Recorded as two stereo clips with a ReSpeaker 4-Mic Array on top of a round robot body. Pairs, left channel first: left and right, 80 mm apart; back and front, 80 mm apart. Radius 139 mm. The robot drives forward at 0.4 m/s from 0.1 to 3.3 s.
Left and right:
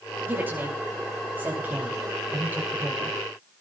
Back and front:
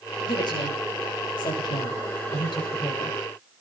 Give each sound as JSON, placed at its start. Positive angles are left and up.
{"t": 0.2, "sound": "a woman speaking", "azimuth_deg": -155, "distance_m": 10.0}